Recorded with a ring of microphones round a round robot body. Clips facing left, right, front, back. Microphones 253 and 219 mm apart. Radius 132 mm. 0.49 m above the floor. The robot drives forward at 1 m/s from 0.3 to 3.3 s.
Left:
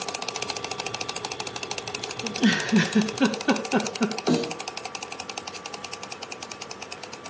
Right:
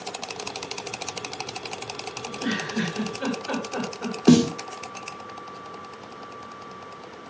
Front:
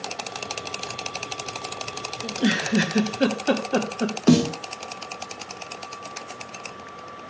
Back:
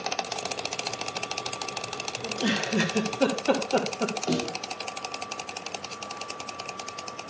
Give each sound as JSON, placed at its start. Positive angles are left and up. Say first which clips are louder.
{"t": 2.2, "sound": "a giggle", "louder": "left 7 dB, front 5 dB", "azimuth_deg": 65, "distance_m": 4.5}
{"t": 4.3, "sound": "a snare drum", "louder": "right 10 dB, front 14 dB", "azimuth_deg": -40, "distance_m": 0.7}